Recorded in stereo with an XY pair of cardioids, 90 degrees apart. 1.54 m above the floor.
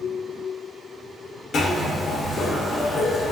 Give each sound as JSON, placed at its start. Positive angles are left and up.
{"t": 1.5, "sound": "a zipper", "azimuth_deg": 60, "distance_m": 0.9}